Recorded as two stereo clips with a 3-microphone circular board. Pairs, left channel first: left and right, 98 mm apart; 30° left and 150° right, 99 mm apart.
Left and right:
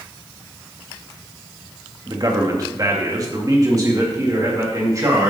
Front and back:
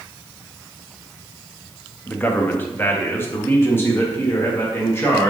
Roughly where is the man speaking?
Ahead right.